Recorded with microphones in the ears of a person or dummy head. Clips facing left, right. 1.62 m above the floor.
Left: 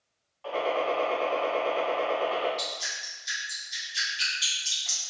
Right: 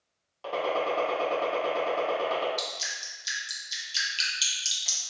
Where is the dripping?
45° right (ahead or behind), 1.0 m.